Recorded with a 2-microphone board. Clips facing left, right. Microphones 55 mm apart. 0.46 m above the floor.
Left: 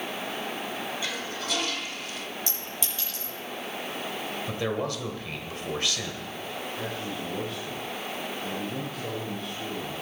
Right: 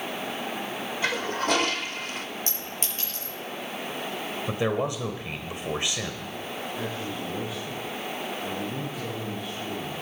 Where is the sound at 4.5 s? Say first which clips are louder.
Right 4 dB; 20° right (ahead or behind), 1.8 m.